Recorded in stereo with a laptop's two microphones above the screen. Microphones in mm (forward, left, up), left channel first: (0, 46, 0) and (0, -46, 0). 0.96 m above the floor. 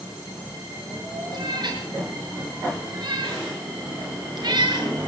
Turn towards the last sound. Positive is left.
turn(degrees=-55)  # may be behind; listen again after turning